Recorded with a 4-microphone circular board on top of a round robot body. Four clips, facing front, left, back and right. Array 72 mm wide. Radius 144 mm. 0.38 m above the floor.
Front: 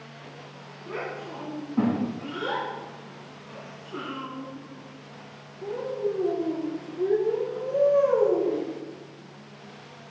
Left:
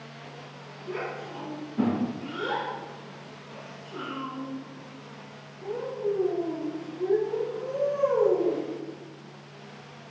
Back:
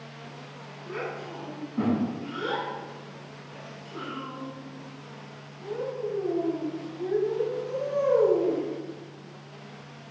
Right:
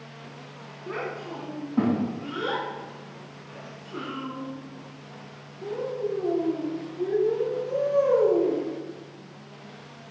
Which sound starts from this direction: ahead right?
A child speaking, at 0.9 s.